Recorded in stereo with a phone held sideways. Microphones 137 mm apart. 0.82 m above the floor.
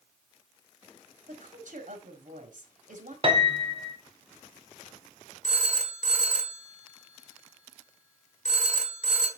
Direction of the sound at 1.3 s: 75° right (ahead or behind).